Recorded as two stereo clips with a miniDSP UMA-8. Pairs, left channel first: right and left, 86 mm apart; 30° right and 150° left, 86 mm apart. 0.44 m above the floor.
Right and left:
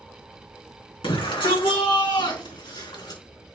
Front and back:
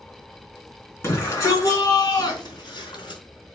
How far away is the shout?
About 4 m.